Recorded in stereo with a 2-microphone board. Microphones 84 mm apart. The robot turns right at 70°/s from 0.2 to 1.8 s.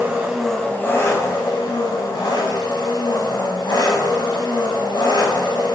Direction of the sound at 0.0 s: 20° right.